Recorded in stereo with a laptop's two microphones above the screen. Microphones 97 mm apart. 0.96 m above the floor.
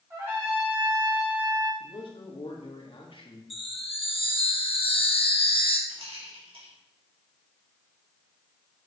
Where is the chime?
65° left (ahead or behind), 2 m.